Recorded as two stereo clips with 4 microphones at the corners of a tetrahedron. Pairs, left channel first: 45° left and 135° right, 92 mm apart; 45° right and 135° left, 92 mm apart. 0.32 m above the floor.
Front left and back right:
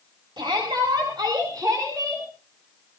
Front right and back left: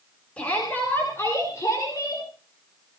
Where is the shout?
120° right, 4 m; by 2.2 s 85° right, 5 m.